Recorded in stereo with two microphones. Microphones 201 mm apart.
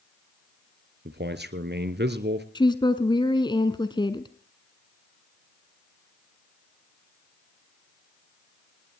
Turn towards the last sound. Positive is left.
turn(degrees=20)  # may be behind; listen again after turning